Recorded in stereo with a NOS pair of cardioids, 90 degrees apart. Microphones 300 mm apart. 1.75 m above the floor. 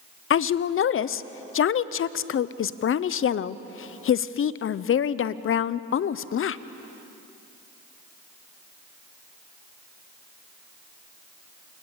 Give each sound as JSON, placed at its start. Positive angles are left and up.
{"t": 0.3, "sound": "a woman speaking", "azimuth_deg": 50, "distance_m": 0.9}